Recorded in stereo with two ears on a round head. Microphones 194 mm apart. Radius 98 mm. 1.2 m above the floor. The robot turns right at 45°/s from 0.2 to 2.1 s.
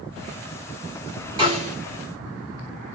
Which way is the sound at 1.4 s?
20° right (ahead or behind).